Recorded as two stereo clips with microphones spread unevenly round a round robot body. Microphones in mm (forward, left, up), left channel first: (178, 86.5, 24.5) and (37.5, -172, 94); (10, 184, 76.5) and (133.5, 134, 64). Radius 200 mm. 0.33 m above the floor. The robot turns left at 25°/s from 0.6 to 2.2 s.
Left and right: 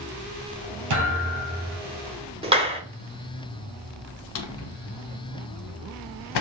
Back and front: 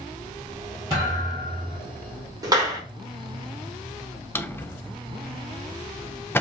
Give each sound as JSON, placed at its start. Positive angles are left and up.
{"t": 0.9, "sound": "a thud", "azimuth_deg": -125, "distance_m": 2.5}
{"t": 2.4, "sound": "a clap", "azimuth_deg": -35, "distance_m": 1.0}
{"t": 4.3, "sound": "a drawer", "azimuth_deg": 80, "distance_m": 0.5}